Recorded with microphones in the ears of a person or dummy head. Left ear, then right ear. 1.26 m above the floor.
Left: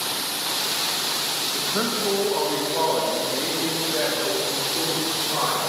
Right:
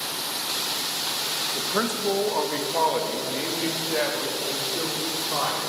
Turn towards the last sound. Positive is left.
turn(degrees=-60)  # may be behind; listen again after turning